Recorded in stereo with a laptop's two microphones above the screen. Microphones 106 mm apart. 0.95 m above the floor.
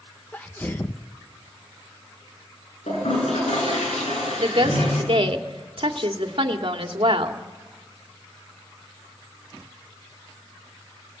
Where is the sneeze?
15° left (ahead or behind), 0.7 m.